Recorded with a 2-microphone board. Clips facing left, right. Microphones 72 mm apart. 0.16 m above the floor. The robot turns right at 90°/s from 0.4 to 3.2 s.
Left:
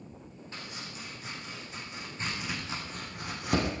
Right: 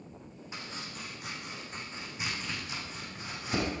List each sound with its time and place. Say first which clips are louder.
0.5 s chopping: right 1 dB; 15° right (ahead or behind), 7 m; by 3.7 s 75° left (ahead or behind), 7 m